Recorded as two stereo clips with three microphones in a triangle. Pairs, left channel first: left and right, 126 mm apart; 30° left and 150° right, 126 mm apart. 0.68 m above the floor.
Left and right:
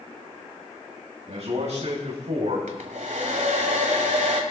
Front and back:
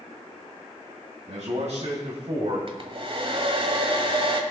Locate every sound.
1.3 s a man speaking: 120° right, 3.5 m; by 2.6 s 105° right, 3 m
2.7 s a hair dryer: 105° right, 1.7 m